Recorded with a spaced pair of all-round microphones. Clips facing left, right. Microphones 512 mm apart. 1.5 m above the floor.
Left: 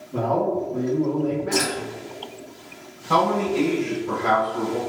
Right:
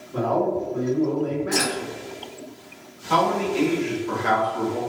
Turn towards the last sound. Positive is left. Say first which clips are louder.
# left 1 dB
turn(degrees=60)  # may be behind; listen again after turning